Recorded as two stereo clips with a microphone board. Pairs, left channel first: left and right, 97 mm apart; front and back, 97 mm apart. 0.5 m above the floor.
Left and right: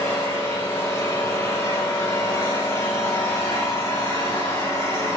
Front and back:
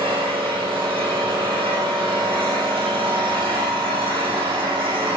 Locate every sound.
0.0 s an engine running: 150° left, 8.5 m